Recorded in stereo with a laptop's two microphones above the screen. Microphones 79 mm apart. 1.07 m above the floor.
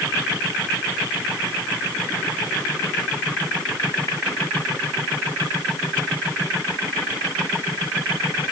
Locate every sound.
Only background noise.